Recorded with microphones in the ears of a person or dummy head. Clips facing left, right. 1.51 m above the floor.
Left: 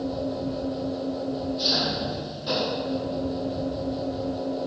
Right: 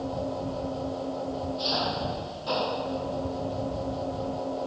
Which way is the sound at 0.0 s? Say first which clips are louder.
Left 3 dB; 20° left (ahead or behind).